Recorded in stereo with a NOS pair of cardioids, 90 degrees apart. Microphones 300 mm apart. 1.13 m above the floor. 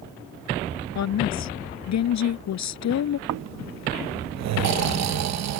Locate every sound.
0.9 s a woman speaking: 65° left
3.3 s snoring: 65° right